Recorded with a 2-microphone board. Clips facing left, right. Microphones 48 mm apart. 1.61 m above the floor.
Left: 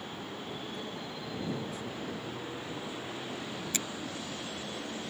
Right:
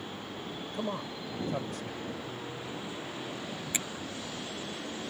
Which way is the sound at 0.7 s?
65° right (ahead or behind).